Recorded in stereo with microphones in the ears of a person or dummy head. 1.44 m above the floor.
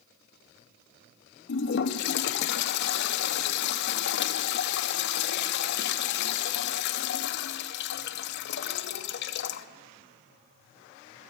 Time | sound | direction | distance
1.5 | a toilet flushing | 60° left (ahead or behind) | 0.6 m